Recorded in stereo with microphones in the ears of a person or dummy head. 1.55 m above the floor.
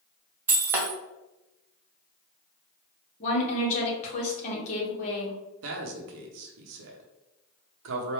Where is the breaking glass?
15° right (ahead or behind), 0.9 m.